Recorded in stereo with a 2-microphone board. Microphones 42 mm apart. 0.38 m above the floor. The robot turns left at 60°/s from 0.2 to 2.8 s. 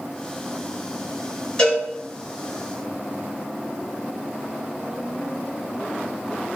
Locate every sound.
1.6 s a cowbell: 15° left (ahead or behind), 1.7 m; by 1.8 s 30° left (ahead or behind), 1.7 m